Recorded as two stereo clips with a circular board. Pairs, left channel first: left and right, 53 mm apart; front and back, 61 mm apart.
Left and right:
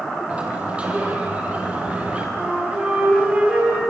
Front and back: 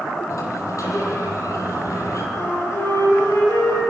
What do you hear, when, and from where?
0.3 s a sliding door: 25° right, 5 m
2.4 s a flute: 25° right, 8 m